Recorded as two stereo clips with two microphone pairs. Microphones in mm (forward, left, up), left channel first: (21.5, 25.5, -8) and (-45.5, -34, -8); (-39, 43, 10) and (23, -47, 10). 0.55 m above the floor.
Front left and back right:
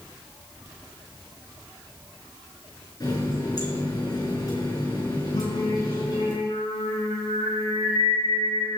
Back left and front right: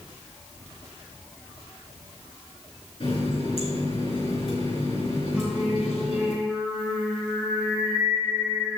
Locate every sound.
3.0 s a running tap: 90° left, 4.5 m
5.3 s singing: 30° left, 3.5 m